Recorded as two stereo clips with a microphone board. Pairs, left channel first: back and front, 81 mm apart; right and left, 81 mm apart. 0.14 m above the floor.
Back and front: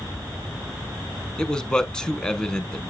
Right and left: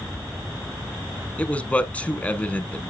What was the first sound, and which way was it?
A man speaking, 120° right.